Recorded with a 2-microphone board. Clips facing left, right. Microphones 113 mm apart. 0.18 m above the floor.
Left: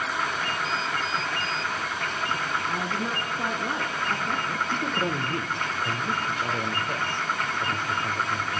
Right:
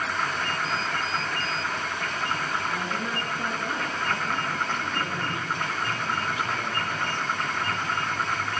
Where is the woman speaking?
20° left (ahead or behind), 2.0 m.